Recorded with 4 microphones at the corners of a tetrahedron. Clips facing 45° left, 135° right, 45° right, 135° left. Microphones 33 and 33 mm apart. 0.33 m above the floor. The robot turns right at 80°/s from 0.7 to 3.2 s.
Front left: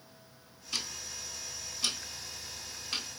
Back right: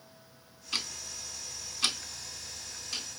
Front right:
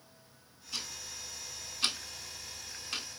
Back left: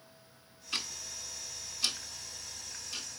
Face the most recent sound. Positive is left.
turn(degrees=15)